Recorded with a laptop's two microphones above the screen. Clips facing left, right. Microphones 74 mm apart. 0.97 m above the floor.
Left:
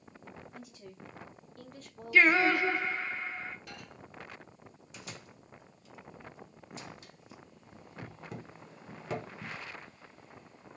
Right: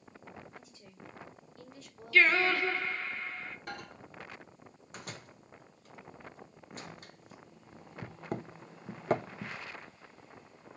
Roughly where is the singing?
Centre.